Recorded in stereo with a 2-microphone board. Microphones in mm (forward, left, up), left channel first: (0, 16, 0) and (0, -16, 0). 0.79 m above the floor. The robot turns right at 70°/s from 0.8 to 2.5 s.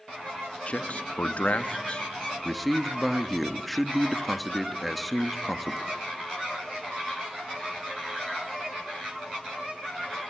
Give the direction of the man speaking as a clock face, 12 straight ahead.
10 o'clock.